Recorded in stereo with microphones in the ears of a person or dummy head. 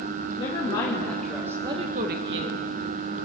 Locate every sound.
0.4 s a woman speaking: 30° left (ahead or behind), 2 m; by 2.7 s 75° right (ahead or behind), 1.6 m